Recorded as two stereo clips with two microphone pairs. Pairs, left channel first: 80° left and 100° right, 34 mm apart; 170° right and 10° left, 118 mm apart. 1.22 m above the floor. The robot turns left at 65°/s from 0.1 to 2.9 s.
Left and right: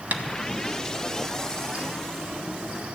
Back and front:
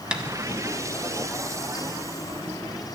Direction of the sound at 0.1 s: 70° right.